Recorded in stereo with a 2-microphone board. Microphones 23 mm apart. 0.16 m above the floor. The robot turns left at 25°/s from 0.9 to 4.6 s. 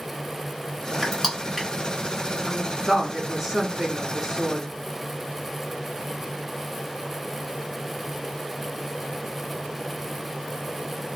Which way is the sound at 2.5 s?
155° right.